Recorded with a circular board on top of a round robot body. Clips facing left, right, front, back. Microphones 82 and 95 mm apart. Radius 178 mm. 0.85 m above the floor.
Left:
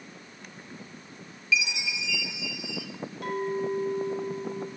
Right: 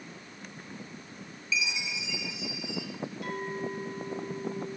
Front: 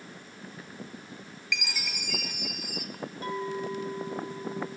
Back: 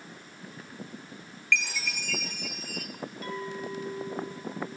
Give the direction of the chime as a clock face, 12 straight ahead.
10 o'clock.